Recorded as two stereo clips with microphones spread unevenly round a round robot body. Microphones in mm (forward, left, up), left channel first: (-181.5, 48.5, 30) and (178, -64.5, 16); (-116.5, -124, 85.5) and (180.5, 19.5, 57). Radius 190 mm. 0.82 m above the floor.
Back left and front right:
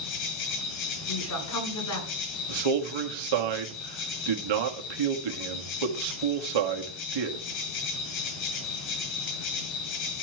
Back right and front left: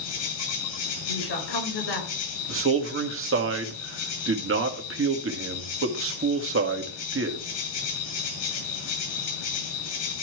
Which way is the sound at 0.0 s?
Straight behind.